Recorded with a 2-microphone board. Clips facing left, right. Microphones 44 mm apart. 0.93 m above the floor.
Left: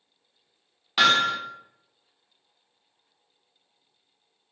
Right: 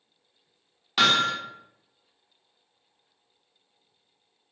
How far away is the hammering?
About 0.9 m.